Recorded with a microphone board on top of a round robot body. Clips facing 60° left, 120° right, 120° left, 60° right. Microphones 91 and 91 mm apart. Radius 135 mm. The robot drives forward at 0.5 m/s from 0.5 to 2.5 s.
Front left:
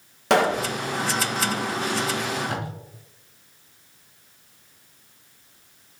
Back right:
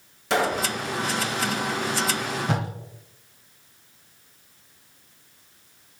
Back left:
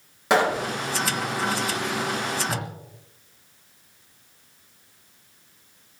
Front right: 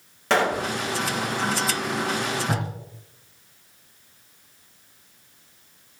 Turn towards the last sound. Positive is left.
turn(degrees=-120)